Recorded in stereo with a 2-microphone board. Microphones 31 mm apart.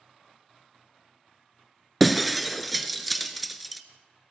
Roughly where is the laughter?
I don't hear laughter.